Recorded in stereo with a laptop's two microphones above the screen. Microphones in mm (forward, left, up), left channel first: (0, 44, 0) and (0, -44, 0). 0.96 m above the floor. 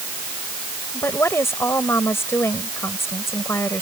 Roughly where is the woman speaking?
Left.